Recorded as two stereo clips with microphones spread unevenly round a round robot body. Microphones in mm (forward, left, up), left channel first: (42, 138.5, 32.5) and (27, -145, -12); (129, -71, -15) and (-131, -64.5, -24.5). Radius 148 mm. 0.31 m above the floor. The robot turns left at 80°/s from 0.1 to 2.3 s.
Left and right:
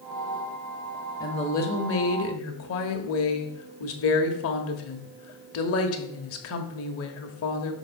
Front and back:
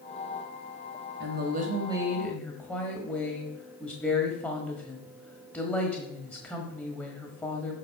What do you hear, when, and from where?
1.2 s a woman speaking: 170° left, 1.4 m; by 7.7 s 85° left, 1.4 m